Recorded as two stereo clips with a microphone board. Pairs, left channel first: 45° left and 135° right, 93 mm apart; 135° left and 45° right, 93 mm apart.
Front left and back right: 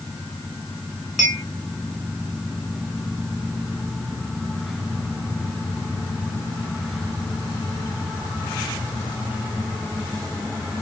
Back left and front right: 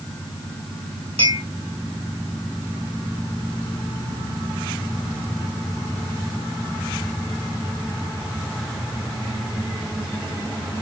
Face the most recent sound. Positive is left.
turn(degrees=-50)